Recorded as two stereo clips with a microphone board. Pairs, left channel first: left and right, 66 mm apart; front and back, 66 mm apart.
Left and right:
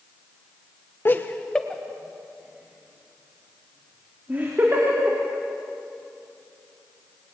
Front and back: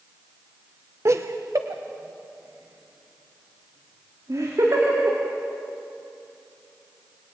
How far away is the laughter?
About 1.2 m.